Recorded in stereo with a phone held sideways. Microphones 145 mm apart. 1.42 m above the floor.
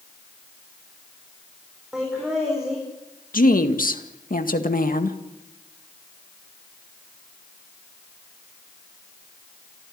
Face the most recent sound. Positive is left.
turn(degrees=80)